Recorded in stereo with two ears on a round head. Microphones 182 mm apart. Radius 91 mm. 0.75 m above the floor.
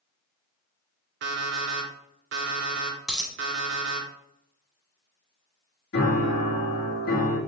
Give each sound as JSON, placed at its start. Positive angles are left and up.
{"t": 1.2, "sound": "an alarm clock", "side_deg": -60, "distance_m": 0.9}
{"t": 3.1, "sound": "a dropped coin", "side_deg": -5, "distance_m": 0.6}
{"t": 5.9, "sound": "a piano", "side_deg": 55, "distance_m": 1.6}